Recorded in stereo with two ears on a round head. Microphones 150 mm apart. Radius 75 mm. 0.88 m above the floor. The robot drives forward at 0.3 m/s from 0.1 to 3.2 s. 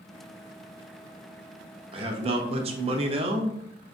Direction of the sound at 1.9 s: 35° right (ahead or behind).